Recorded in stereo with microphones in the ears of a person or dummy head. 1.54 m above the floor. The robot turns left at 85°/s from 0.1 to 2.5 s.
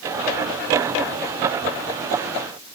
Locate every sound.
Only background noise.